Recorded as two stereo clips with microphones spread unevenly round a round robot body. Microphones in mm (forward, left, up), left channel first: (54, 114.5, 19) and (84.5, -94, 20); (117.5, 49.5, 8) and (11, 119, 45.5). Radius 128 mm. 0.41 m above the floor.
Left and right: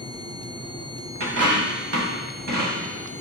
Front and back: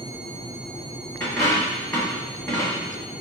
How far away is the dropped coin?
About 0.7 m.